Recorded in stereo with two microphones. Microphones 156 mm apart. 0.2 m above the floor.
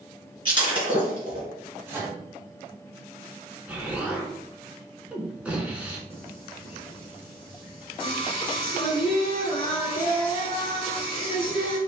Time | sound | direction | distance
0.5 | breaking glass | 35° right (ahead or behind) | 1.8 m
1.9 | a microwave | 15° right (ahead or behind) | 1.2 m
3.7 | an explosion | 10° right (ahead or behind) | 0.7 m
6.1 | singing | 35° left (ahead or behind) | 0.9 m